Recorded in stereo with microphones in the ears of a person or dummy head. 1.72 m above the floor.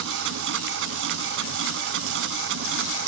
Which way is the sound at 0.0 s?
75° right (ahead or behind).